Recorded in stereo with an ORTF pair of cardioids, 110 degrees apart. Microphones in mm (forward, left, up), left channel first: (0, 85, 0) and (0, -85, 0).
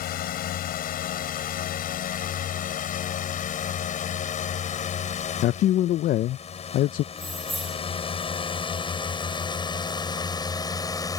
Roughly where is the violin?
No violin in this recording.